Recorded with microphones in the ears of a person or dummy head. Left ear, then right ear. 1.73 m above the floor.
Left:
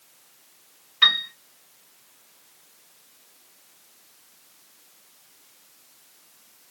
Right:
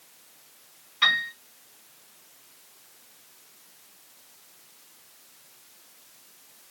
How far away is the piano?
About 2.5 m.